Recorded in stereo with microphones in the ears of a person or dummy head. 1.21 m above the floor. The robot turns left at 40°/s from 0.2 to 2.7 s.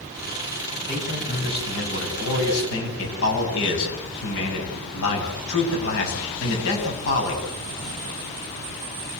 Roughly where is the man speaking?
Behind left.